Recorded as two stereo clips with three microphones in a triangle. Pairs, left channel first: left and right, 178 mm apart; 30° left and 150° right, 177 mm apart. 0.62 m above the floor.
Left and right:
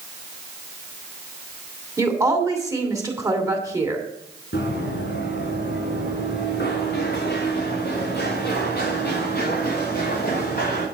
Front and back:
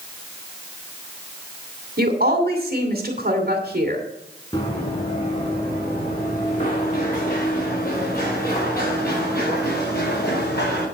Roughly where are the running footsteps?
Left.